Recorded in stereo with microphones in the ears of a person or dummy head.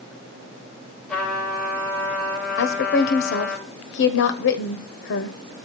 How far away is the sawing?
No sawing in this recording.